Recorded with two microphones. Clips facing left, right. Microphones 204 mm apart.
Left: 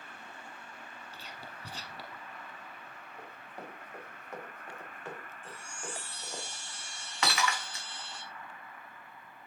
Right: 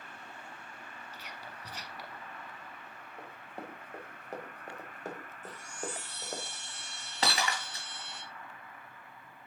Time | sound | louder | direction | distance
1.1 | whispering | even | 30° left (ahead or behind) | 1.3 m
3.2 | running footsteps | right 2 dB | 25° right (ahead or behind) | 4 m
5.4 | a chime | right 5 dB | 40° right (ahead or behind) | 2.5 m
7.2 | breaking glass | even | 35° right (ahead or behind) | 4.5 m